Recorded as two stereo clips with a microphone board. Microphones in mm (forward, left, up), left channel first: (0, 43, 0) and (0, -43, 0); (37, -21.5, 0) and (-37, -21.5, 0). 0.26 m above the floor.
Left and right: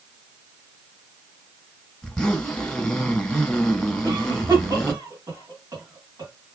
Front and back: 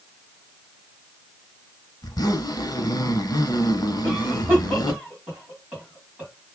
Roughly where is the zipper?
Ahead.